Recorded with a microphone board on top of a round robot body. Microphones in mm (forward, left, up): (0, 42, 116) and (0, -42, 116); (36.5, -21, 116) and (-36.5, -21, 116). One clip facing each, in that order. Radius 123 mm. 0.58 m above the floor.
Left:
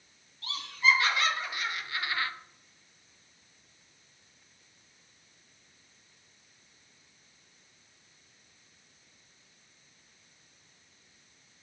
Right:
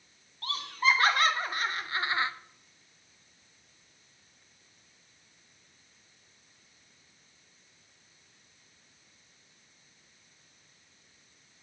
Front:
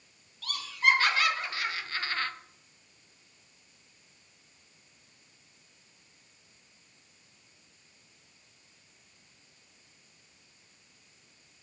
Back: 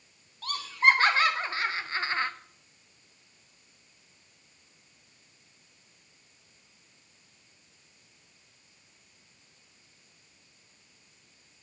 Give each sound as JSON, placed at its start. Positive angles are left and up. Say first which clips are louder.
{"t": 0.4, "sound": "laughter", "louder": "even, back 3 dB", "azimuth_deg": -130, "distance_m": 3.5}